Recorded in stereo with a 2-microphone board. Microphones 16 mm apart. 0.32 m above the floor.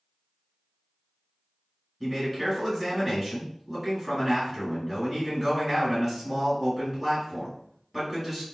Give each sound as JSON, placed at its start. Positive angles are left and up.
{"t": 2.0, "sound": "a man speaking", "side_deg": -10, "distance_m": 1.3}